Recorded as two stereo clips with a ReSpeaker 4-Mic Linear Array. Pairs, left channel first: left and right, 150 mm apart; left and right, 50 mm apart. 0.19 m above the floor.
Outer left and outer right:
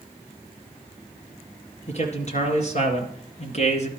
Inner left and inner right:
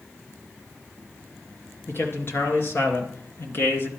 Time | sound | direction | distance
1.9 | a man speaking | 45° left (ahead or behind) | 3 m